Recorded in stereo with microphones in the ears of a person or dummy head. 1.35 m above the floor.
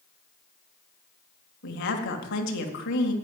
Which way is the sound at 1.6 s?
55° left (ahead or behind).